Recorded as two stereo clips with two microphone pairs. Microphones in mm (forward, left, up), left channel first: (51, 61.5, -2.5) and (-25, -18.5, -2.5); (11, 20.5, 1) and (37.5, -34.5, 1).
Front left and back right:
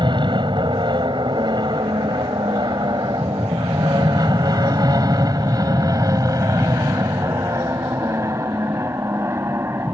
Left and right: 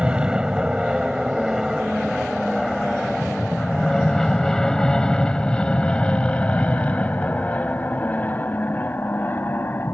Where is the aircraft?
135° right; by 9.9 s 165° left.